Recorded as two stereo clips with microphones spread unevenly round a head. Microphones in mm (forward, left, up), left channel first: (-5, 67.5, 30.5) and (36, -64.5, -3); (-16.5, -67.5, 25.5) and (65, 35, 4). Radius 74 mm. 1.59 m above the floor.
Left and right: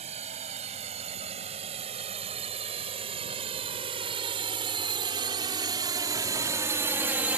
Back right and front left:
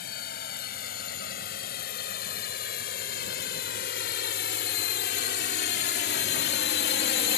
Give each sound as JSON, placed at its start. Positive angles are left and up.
{"t": 0.0, "sound": "a drone", "azimuth_deg": -125}